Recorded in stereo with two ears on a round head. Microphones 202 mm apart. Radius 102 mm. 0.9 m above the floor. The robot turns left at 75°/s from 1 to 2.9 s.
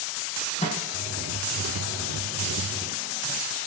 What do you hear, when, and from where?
0.6 s a microwave: 30° left (ahead or behind), 7.5 m; by 3.4 s 10° left (ahead or behind), 7.5 m